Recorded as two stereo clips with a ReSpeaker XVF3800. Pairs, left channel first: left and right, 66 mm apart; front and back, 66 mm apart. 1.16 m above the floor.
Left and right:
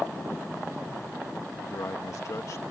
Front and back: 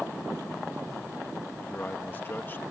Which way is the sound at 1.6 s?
55° left.